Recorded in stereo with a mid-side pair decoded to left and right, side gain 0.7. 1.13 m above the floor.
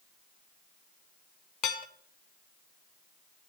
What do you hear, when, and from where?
1.6 s dishes clattering: 55° left, 0.6 m